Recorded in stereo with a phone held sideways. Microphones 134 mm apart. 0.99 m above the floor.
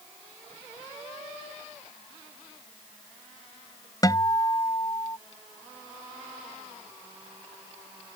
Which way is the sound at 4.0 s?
30° left (ahead or behind).